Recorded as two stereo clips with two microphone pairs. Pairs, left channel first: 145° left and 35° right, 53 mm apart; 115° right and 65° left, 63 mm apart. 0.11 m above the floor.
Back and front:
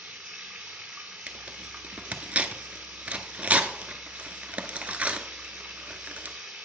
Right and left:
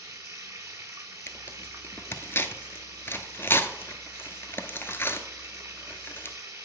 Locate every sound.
0.0 s running water: 35° left, 1.3 m
1.3 s tearing paper: 85° right, 0.6 m